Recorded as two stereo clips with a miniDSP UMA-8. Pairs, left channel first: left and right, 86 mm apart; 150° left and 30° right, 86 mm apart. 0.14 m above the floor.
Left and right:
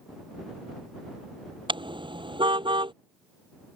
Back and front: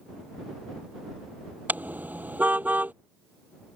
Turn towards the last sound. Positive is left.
turn(degrees=-100)